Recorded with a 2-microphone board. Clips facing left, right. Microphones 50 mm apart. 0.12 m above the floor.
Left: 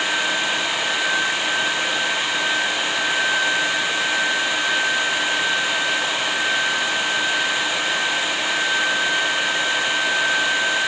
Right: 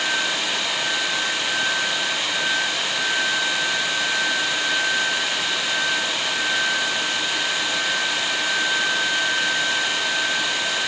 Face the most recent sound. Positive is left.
No sound to turn to.